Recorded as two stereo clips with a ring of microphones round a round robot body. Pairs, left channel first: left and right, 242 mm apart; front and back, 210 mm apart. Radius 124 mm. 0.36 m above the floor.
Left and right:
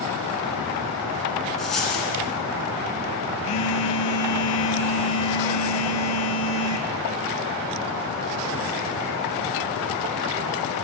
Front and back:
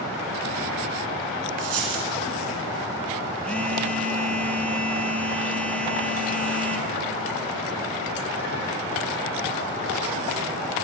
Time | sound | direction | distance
1.6 | a dropped coin | straight behind | 2 m
3.4 | a phone buzzing | 85° left | 1.1 m